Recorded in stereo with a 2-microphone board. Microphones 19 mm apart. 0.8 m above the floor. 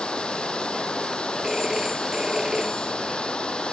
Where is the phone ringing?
25° right (ahead or behind).